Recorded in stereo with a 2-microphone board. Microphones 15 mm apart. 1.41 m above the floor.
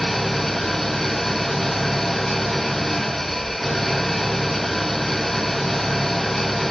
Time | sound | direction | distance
0.0 | an engine running | 15° left (ahead or behind) | 0.9 m